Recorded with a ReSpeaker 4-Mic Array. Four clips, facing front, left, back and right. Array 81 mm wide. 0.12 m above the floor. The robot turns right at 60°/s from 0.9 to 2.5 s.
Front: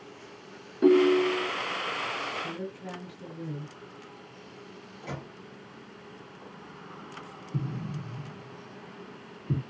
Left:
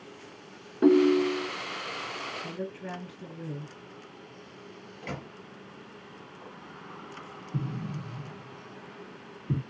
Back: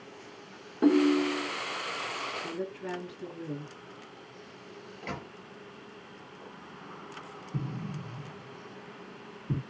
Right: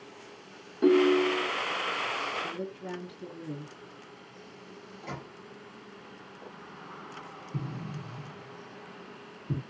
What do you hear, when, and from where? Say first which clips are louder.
0.8 s a ringtone: left 1 dB, front 3 dB; 115° left, 0.6 m; by 1.5 s 150° left, 0.6 m
2.4 s a woman speaking: even, back 1 dB; 105° left, 2 m; by 3.8 s 110° left, 2 m
5.0 s a microwave: left 2 dB, even; 125° left, 1.6 m
7.5 s an explosion: left 3 dB, front 2 dB; 105° left, 1.7 m